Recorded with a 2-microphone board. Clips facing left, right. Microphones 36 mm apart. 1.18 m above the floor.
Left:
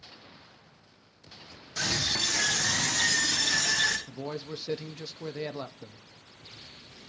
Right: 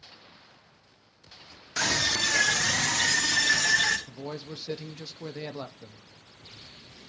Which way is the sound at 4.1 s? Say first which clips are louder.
Left 1 dB; 15° left (ahead or behind).